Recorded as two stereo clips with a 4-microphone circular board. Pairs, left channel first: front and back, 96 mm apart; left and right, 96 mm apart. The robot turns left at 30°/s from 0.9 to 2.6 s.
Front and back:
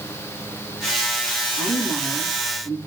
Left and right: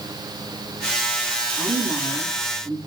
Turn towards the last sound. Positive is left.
turn(degrees=-50)